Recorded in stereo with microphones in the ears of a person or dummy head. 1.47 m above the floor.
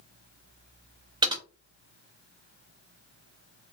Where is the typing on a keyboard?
20° right (ahead or behind), 0.6 m.